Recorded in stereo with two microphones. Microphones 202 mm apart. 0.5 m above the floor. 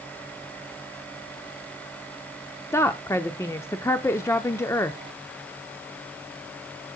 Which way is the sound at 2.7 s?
15° left (ahead or behind).